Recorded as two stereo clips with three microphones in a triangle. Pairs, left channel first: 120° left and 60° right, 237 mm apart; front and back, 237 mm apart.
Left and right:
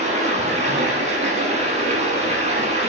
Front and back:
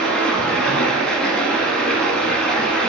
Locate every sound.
0.0 s running water: 85° right, 1.0 m